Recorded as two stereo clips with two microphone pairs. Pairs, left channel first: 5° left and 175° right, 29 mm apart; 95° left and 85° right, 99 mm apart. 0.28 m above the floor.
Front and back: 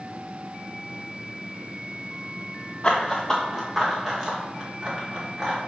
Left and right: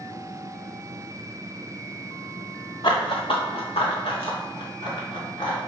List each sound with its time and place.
2.8 s running footsteps: 60° left, 1.3 m; by 5.6 s 120° left, 4 m